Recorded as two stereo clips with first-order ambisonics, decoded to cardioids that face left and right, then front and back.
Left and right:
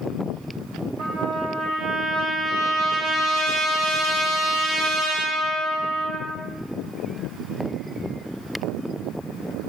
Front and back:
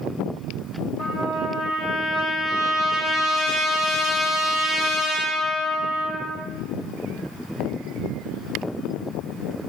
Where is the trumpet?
45° right, 2 m.